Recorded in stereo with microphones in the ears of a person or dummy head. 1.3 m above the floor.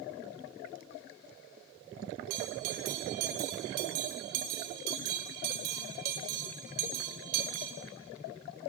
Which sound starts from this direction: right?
A bell, at 2.3 s.